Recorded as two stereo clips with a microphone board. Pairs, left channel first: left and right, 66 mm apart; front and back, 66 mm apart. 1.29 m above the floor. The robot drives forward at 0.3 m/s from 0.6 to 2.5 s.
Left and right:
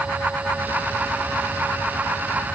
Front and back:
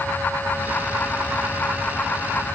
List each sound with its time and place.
Only background noise.